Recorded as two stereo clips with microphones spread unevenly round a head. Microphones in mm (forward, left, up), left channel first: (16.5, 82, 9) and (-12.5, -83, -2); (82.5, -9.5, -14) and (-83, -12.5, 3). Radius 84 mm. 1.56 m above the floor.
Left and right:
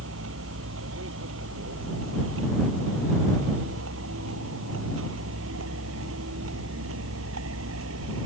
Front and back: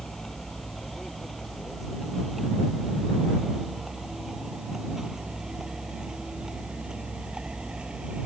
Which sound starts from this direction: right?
A vehicle, at 0.0 s.